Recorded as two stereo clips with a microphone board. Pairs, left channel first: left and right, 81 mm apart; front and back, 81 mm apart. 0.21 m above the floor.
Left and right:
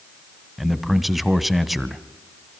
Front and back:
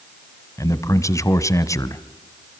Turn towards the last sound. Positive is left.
turn(degrees=-5)